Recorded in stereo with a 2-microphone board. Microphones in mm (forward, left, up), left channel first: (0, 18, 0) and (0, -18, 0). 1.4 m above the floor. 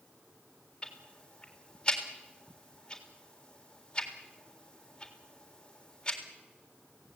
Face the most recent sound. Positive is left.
turn(degrees=25)  # may be behind; listen again after turning